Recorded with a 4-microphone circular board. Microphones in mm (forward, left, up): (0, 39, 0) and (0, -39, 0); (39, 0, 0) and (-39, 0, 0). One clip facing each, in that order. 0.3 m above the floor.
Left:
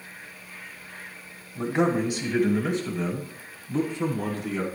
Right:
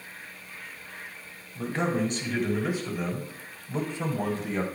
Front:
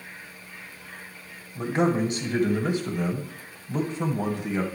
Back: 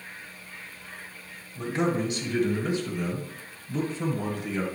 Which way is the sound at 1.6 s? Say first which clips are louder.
Left 4 dB, front 3 dB; 40° left.